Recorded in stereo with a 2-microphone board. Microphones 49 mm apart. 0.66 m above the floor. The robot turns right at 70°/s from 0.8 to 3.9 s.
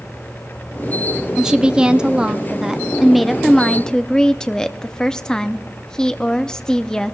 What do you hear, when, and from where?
1.4 s a woman speaking: 15° right (ahead or behind), 0.5 m; by 7.2 s 15° left (ahead or behind), 0.5 m